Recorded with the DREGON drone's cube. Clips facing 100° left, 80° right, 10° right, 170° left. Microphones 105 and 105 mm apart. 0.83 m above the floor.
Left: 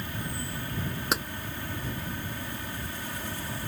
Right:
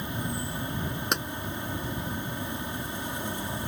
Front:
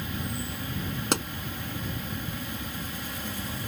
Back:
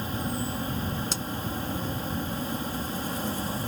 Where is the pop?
15° left.